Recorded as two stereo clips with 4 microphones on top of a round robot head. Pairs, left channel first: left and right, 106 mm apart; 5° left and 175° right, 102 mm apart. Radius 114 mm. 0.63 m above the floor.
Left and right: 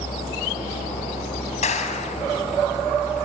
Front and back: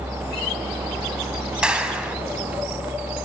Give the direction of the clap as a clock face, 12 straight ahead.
9 o'clock.